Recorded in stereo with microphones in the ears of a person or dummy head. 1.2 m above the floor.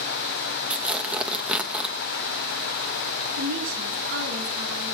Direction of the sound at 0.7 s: 5° right (ahead or behind).